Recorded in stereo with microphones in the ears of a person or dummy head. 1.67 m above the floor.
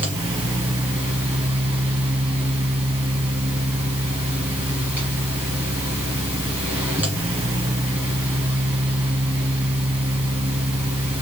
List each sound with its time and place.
0.0 s a fan: 10° right (ahead or behind), 1.4 m